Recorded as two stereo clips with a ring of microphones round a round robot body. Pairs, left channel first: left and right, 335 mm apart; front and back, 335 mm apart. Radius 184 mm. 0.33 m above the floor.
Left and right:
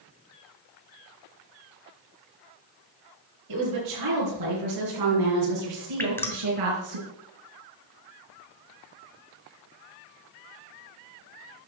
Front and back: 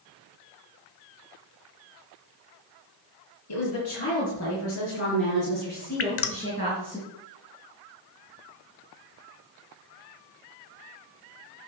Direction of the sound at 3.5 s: 50° right.